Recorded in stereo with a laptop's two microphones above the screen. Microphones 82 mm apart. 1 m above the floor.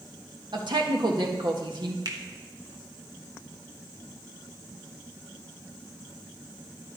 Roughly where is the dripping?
I don't hear dripping.